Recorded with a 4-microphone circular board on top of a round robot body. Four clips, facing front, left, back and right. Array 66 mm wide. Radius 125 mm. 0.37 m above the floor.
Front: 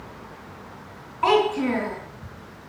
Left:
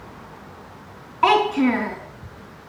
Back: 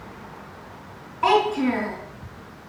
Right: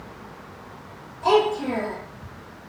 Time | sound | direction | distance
1.2 | a child speaking | 90° left | 3 m